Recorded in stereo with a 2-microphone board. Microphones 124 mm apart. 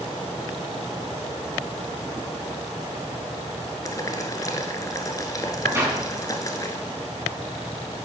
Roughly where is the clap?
Right.